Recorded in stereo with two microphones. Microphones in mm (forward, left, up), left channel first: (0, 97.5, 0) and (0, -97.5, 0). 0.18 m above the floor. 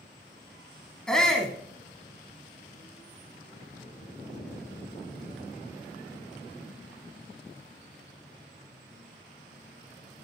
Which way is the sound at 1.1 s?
5° left (ahead or behind).